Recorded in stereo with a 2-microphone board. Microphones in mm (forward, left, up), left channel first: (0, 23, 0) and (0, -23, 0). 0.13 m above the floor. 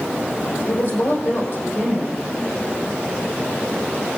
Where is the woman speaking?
70° left (ahead or behind), 5.5 m.